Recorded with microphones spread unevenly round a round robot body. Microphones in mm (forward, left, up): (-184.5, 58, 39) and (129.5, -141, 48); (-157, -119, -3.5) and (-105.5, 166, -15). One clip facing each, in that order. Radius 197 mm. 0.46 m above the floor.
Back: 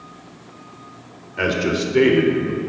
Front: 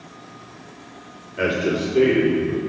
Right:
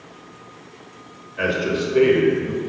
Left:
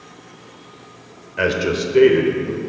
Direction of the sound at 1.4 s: 70° left.